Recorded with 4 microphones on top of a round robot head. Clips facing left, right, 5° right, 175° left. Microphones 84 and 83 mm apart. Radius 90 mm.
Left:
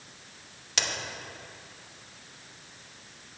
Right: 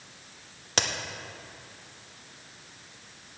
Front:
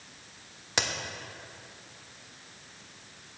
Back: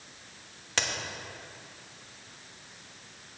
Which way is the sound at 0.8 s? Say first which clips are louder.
Right 4 dB, front 1 dB; 75° right.